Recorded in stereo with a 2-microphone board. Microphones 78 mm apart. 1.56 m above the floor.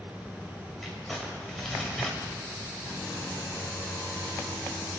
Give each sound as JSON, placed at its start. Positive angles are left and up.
{"t": 0.8, "sound": "crumpling", "side_deg": 0, "distance_m": 5.5}